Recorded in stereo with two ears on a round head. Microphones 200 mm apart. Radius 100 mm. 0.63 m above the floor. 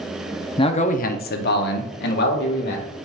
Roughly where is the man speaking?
Left.